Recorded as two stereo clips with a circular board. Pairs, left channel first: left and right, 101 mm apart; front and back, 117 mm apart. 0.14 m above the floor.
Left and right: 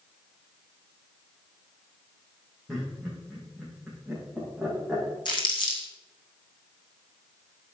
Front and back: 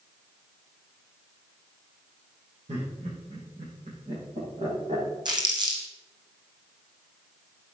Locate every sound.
2.7 s laughter: straight behind, 5 m; by 5.2 s 175° right, 8 m
5.2 s crumpling: 130° left, 2.5 m